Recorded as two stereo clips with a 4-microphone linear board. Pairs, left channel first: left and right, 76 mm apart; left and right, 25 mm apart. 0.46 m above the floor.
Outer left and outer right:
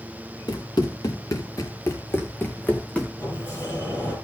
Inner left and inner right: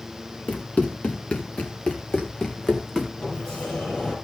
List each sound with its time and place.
0.5 s running footsteps: 60° left (ahead or behind), 3.5 m; by 3.1 s 10° left (ahead or behind), 3 m
3.2 s a sliding door: 35° left (ahead or behind), 6 m